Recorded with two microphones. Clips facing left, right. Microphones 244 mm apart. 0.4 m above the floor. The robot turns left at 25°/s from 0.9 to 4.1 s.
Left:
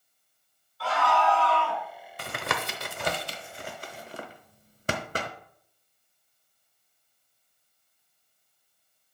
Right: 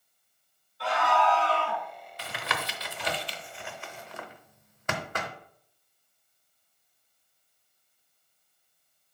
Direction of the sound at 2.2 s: 55° left (ahead or behind).